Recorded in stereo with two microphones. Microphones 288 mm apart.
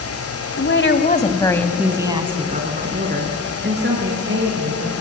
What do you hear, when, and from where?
0.6 s a woman speaking: 45° left (ahead or behind), 1.7 m; by 4.9 s 40° right (ahead or behind), 5.5 m